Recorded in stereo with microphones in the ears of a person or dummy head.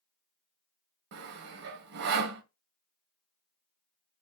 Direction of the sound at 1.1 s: 55° right (ahead or behind).